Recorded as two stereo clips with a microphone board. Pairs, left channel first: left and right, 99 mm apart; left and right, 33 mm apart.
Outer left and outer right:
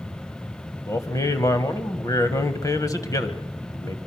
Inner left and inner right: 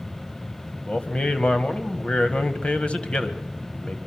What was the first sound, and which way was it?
A man speaking, 35° left (ahead or behind).